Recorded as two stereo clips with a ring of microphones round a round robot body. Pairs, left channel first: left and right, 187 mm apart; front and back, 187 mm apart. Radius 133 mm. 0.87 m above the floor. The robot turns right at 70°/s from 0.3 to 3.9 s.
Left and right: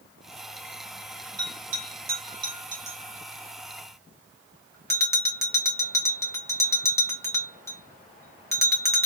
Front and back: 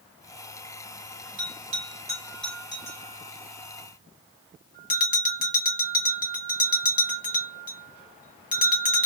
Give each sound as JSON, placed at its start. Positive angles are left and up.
{"t": 1.4, "sound": "a bell", "azimuth_deg": -160, "distance_m": 1.1}